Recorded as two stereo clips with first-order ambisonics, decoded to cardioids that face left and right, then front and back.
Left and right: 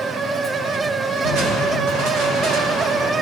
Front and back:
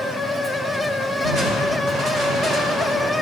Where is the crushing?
135° right, 3 m.